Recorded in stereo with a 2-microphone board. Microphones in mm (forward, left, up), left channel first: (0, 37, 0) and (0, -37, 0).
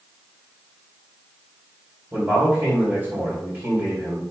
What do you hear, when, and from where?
2.1 s a man speaking: 25° right (ahead or behind), 3 m